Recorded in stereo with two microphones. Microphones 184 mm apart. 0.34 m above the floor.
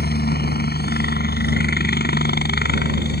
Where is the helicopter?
60° left (ahead or behind).